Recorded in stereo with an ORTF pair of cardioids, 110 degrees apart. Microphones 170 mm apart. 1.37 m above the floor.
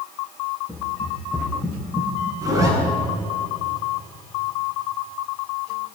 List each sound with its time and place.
0.7 s running footsteps: 5° left, 6 m
2.4 s a zipper: 20° right, 9.5 m